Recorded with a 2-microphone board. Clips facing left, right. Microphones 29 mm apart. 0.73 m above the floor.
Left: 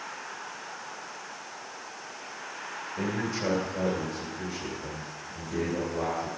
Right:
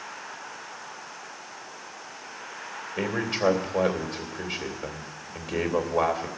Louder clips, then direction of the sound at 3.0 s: Right 4 dB; 75° right (ahead or behind).